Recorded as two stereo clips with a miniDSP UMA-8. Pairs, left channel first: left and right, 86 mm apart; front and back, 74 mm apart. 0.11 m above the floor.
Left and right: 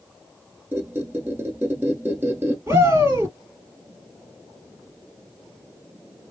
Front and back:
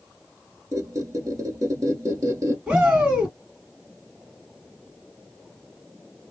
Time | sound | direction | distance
0.7 | a squeak | 150° right | 1.2 m
2.7 | a shout | 115° right | 2 m